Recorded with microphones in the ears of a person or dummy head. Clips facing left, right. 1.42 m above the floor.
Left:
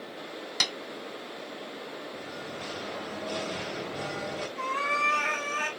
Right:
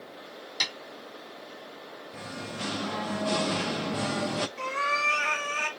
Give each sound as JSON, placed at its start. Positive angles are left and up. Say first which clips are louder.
{"t": 0.6, "sound": "tapping", "louder": "left 3 dB", "side_deg": 65, "distance_m": 1.5}
{"t": 2.1, "sound": "singing", "louder": "even", "side_deg": -70, "distance_m": 0.6}
{"t": 4.6, "sound": "a cat meowing", "louder": "even", "side_deg": -20, "distance_m": 1.7}